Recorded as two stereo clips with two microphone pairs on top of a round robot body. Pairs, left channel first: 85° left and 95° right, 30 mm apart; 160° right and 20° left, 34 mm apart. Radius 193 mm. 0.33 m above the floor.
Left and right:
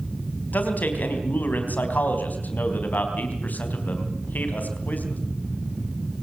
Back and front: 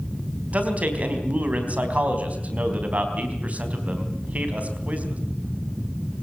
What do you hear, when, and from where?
0.5 s a man speaking: 65° left, 4 m